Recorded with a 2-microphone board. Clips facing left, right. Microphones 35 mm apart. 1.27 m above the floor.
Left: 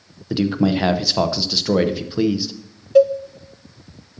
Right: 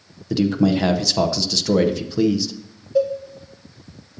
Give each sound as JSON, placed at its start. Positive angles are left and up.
{"t": 0.3, "sound": "a man speaking", "side_deg": 20, "distance_m": 0.7}
{"t": 3.0, "sound": "a cowbell", "side_deg": 70, "distance_m": 0.5}